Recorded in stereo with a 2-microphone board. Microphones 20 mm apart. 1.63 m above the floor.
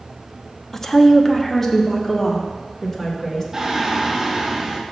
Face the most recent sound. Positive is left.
turn(degrees=-25)  # may be behind; listen again after turning